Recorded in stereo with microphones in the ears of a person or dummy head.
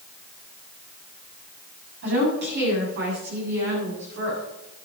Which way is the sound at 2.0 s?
65° right (ahead or behind).